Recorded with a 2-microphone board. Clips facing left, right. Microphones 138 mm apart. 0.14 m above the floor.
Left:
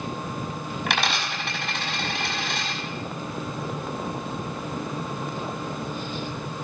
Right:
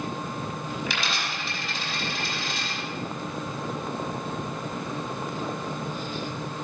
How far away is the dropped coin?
About 5 m.